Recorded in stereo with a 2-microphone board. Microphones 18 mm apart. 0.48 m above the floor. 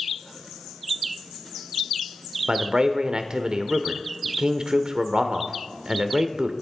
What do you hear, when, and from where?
2.5 s a man speaking: 45° right (ahead or behind), 1.0 m